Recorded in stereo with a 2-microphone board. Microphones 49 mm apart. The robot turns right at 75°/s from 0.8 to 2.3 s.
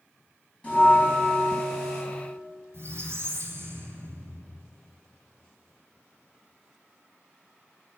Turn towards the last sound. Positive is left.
turn(degrees=-65)  # may be behind; listen again after turning